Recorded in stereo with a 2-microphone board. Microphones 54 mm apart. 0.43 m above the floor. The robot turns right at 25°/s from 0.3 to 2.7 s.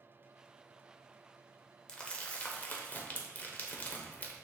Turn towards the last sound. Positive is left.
turn(degrees=30)  # may be behind; listen again after turning